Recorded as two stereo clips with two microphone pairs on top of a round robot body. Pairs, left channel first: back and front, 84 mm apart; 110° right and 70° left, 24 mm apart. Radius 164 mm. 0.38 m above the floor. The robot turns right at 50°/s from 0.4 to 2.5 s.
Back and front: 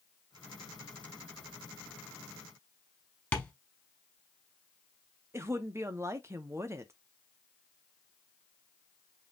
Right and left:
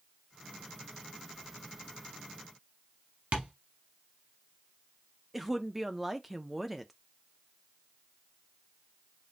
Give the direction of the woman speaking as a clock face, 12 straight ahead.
1 o'clock.